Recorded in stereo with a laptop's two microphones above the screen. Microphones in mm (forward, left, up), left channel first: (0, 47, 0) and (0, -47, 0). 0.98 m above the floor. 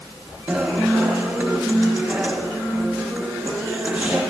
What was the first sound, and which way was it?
A guitar, 10° right (ahead or behind).